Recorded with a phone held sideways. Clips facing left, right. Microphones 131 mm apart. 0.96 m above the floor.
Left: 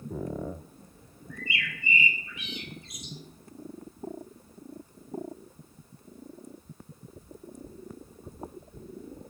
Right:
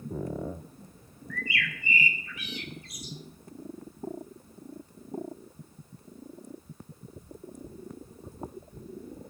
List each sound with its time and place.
1.3 s a bird: 25° left (ahead or behind), 1.7 m